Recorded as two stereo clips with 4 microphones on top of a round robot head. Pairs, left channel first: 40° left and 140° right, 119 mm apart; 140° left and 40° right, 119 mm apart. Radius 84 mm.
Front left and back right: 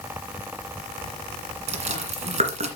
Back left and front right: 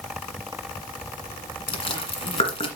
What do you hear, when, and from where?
1.7 s chewing: 175° right, 1.8 m